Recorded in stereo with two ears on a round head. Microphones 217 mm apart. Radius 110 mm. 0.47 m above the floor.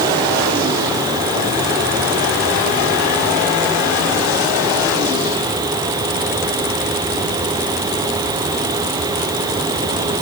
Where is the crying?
No crying in this recording.